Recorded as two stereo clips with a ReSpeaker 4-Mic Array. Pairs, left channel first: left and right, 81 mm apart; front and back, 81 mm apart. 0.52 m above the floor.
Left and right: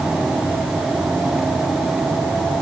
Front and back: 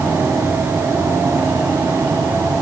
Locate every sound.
Only background noise.